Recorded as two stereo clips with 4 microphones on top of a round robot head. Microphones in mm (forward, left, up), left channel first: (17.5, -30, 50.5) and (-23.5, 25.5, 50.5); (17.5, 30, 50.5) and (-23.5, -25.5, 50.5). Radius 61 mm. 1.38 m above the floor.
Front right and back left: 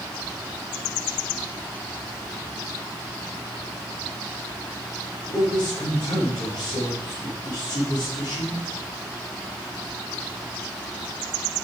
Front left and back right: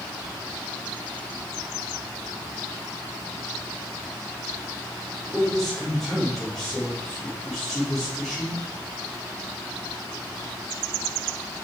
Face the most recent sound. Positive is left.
turn(degrees=-35)